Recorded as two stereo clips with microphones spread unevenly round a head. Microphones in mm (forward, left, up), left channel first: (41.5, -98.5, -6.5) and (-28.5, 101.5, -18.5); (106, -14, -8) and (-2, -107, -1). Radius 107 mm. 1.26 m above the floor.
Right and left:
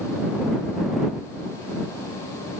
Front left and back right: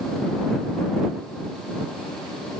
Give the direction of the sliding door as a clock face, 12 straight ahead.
I don't hear a sliding door.